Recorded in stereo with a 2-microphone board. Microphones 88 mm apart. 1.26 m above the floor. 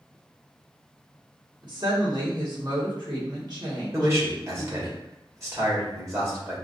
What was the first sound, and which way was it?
A woman speaking, 50° right (ahead or behind).